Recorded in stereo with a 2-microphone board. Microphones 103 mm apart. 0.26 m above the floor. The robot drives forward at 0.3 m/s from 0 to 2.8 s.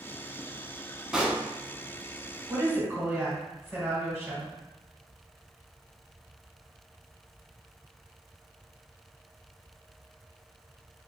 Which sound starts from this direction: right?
A woman speaking, at 2.5 s.